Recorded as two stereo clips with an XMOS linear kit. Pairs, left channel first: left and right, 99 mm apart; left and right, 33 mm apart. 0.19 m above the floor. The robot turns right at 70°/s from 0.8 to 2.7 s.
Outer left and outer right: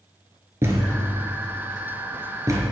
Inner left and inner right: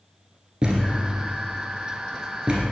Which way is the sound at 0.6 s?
25° right (ahead or behind).